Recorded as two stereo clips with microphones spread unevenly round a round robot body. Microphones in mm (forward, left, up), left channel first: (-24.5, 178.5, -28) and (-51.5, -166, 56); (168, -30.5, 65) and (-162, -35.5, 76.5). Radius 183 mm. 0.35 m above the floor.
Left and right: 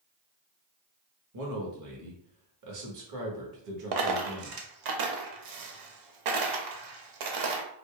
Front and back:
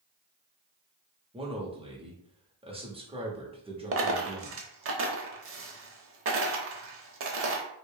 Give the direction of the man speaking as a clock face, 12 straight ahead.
4 o'clock.